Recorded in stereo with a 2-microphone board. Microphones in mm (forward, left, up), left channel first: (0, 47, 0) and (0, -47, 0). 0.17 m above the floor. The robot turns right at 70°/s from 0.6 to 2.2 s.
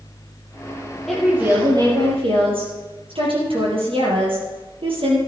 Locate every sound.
1.1 s a woman speaking: 175° left, 4.5 m; by 5.2 s 105° right, 4.5 m